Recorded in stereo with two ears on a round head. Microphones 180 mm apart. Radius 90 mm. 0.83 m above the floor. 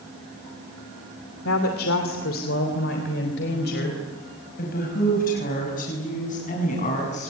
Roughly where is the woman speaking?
Left.